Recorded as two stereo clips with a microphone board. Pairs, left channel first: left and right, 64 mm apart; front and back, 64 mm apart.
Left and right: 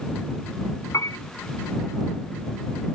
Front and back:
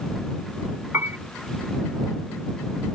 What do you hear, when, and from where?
0.9 s a piano: 125° left